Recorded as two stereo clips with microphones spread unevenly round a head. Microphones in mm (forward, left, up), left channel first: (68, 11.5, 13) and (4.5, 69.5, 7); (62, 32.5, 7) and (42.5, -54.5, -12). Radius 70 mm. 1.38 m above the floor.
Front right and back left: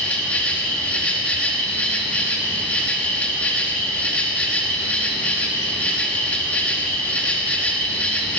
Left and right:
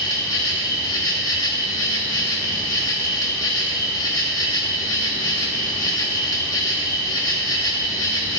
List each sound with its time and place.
0.0 s an insect: 30° left, 2.5 m